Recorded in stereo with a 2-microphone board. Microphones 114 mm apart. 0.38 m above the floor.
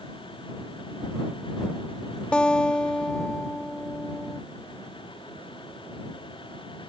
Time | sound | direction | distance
2.3 | a guitar | 10° left (ahead or behind) | ?